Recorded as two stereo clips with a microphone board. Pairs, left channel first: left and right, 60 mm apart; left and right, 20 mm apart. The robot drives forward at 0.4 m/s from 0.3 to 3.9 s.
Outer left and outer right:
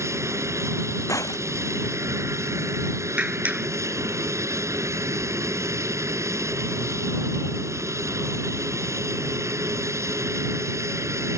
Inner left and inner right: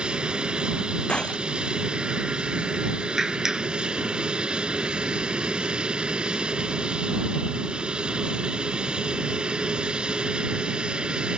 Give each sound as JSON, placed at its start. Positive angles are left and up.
{"t": 0.0, "sound": "an aircraft", "side_deg": -55}
{"t": 1.1, "sound": "breaking glass", "side_deg": 65}
{"t": 3.2, "sound": "a clap", "side_deg": -25}